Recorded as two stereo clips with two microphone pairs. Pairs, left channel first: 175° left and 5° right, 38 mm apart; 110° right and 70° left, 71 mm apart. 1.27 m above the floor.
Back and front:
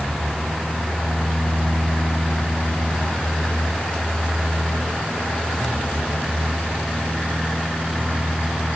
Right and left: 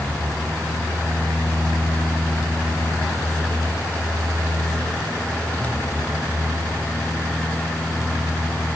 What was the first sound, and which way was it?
Only background noise.